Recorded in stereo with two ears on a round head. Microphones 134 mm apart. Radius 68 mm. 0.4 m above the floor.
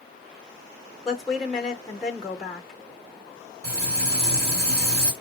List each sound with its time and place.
1.1 s a woman speaking: 5° left (ahead or behind), 0.7 m
3.6 s frying: 40° right (ahead or behind), 1.3 m